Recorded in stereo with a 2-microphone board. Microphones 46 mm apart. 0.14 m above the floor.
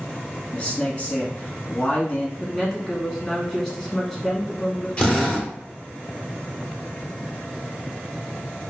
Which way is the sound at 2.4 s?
10° left (ahead or behind).